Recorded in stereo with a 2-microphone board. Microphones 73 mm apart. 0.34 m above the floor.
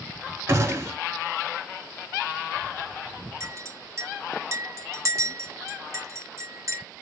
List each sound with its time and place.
0.5 s a gunshot: 40° right (ahead or behind), 0.8 m
3.4 s a clink: 45° right (ahead or behind), 0.6 m